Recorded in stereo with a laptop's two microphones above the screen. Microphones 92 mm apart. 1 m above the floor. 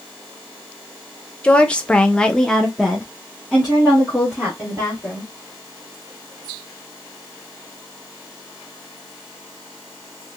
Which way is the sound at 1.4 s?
10° left (ahead or behind).